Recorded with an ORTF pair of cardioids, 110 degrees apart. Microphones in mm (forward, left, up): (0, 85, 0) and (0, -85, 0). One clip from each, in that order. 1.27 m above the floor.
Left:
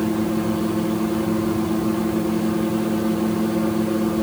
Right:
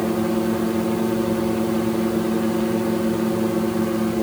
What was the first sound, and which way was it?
Only background noise.